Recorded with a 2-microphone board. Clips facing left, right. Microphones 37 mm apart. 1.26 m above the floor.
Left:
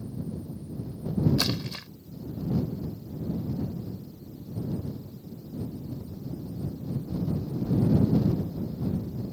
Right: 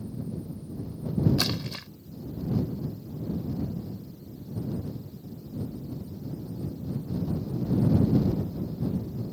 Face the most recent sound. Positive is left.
turn(degrees=-10)  # may be behind; listen again after turning